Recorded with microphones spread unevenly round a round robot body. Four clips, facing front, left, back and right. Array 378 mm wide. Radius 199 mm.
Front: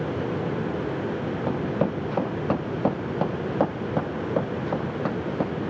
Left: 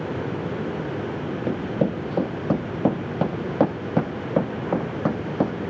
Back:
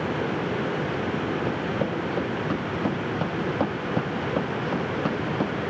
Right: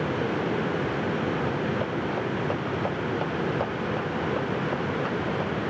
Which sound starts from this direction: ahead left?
Running footsteps, at 1.5 s.